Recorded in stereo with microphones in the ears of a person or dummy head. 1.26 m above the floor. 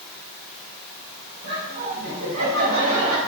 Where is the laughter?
75° right (ahead or behind), 5 m; by 3.2 s 90° right, 5.5 m.